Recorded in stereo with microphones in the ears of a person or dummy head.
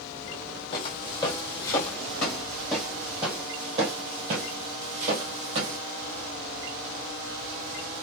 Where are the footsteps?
30° left (ahead or behind), 1.7 m; by 5.8 s 40° right (ahead or behind), 1.8 m.